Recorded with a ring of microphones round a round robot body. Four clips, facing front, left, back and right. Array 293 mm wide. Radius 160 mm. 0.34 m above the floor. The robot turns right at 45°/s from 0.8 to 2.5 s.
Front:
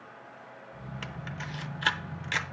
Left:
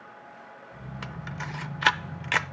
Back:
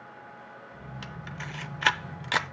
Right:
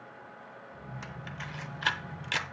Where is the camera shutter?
75° left, 0.8 m; by 2.4 s 140° left, 0.8 m.